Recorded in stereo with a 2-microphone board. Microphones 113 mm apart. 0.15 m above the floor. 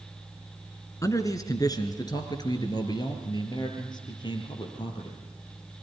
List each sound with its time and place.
1.0 s a man speaking: 30° left (ahead or behind), 1.8 m; by 5.2 s 40° left (ahead or behind), 4.5 m